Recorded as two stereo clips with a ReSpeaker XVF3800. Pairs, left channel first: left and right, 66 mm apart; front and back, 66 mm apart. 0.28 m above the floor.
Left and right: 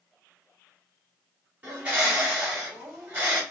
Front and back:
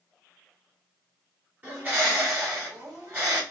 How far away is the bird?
About 1.8 m.